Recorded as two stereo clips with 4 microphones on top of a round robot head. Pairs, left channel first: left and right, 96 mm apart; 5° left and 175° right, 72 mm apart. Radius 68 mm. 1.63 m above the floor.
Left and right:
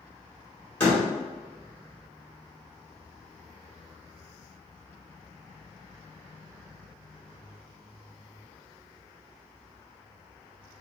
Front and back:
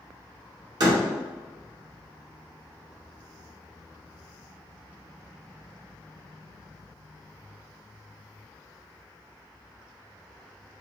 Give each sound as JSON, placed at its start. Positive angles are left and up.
{"t": 0.8, "sound": "a door slam", "azimuth_deg": 165, "distance_m": 1.2}